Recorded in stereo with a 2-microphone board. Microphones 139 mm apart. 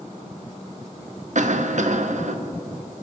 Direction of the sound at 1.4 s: 60° right (ahead or behind).